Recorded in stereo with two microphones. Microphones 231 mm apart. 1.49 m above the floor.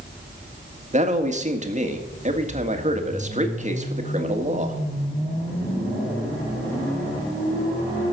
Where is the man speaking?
30° right (ahead or behind), 1.7 m.